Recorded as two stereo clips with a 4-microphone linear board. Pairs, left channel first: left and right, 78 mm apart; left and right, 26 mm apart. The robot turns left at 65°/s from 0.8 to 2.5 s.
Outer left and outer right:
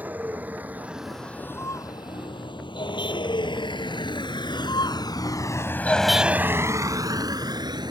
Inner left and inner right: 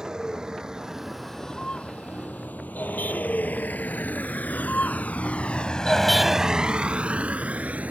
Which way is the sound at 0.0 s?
20° right (ahead or behind).